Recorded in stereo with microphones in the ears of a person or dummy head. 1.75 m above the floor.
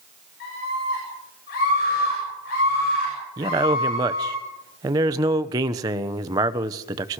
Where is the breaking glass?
I don't hear breaking glass.